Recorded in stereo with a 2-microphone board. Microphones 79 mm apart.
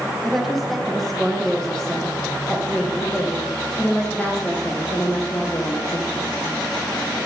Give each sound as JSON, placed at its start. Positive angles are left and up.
{"t": 0.2, "sound": "a woman speaking", "side_deg": 0, "distance_m": 5.5}